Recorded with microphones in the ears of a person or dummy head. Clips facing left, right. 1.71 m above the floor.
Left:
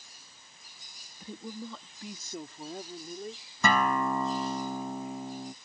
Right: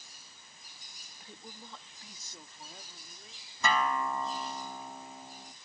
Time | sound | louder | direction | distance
1.2 | a woman speaking | left 11 dB | 80° left | ?
3.6 | a guitar | left 4 dB | 50° left (ahead or behind) | ?